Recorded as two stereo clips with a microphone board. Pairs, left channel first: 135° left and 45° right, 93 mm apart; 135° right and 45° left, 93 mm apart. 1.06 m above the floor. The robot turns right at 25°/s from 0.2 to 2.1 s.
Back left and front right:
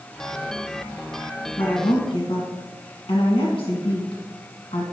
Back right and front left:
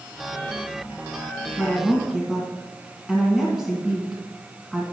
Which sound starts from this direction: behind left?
A woman speaking, at 1.6 s.